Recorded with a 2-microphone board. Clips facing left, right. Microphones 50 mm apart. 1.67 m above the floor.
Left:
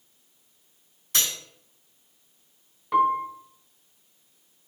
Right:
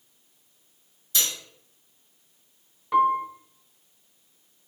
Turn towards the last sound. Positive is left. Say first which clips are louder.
# right 1 dB
turn(degrees=0)  # may be behind; listen again after turning